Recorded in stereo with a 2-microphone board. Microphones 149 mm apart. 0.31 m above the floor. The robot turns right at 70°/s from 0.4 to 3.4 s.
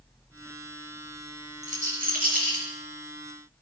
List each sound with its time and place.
1.6 s a rattle: 50° right (ahead or behind), 5.5 m; by 2.6 s 55° right (ahead or behind), 5.5 m